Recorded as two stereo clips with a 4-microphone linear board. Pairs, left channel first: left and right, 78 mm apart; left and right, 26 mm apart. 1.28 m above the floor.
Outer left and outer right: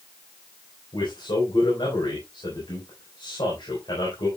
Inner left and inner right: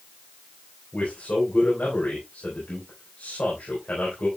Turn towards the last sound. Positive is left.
turn(degrees=85)